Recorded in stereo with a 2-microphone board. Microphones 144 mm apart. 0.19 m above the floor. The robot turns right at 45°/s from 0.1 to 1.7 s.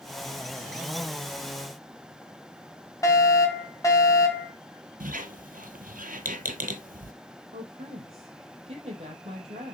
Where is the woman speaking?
45° right (ahead or behind), 4.5 m.